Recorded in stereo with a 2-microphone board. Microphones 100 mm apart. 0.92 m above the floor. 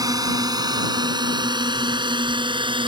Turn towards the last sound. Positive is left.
turn(degrees=-55)  # may be behind; listen again after turning